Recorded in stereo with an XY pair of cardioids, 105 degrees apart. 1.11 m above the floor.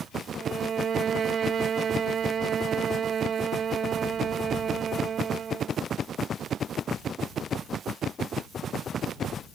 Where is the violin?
50° right.